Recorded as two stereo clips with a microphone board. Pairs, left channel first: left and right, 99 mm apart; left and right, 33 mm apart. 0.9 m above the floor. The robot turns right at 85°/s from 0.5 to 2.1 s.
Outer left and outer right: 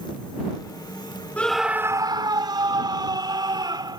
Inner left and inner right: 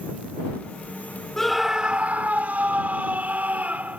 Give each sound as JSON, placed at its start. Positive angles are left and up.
{"t": 1.4, "sound": "a scream", "azimuth_deg": 165}